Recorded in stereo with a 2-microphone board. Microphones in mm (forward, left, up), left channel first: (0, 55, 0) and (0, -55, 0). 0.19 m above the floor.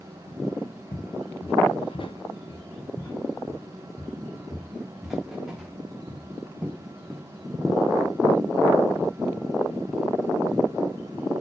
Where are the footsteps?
80° left, 1.4 m; by 7.2 s 15° right (ahead or behind), 3.5 m.